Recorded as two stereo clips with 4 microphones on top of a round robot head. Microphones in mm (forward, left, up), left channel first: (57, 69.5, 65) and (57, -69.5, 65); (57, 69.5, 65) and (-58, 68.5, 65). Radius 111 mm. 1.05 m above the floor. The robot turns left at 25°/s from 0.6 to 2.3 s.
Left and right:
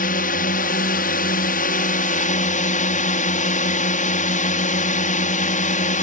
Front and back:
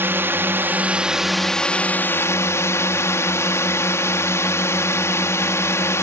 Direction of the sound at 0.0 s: 110° left.